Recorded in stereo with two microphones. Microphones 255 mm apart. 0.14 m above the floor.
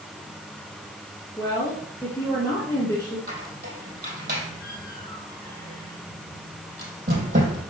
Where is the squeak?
35° right (ahead or behind), 3.5 m.